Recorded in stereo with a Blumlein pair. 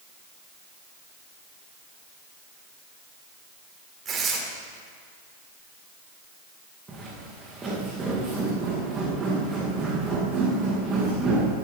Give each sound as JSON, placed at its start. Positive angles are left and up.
{"t": 4.0, "sound": "tearing paper", "azimuth_deg": -25, "distance_m": 3.0}
{"t": 6.9, "sound": "footsteps", "azimuth_deg": -15, "distance_m": 4.5}